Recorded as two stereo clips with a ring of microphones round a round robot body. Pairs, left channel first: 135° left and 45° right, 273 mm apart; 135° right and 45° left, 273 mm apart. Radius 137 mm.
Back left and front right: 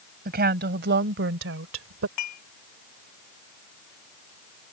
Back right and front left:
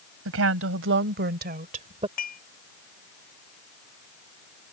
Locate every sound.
0.2 s a woman speaking: 10° left; by 2.1 s 20° right
2.2 s dishes clattering: 165° left